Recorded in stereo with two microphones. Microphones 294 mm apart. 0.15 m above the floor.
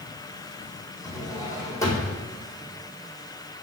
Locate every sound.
1.0 s a drawer: 10° left (ahead or behind), 1.9 m